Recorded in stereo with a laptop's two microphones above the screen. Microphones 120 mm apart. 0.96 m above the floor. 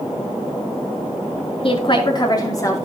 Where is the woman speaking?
50° left (ahead or behind), 2.5 m; by 2.9 s 25° left (ahead or behind), 3 m.